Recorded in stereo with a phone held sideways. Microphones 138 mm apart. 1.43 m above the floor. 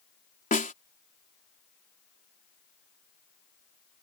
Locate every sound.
0.5 s a snare drum: 70° left (ahead or behind)